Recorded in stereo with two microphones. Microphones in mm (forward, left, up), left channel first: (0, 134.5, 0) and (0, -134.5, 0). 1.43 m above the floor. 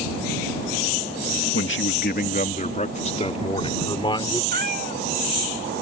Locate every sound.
1.5 s a man speaking: 50° left (ahead or behind); by 4.4 s 15° left (ahead or behind)
4.5 s a cat meowing: 40° right (ahead or behind)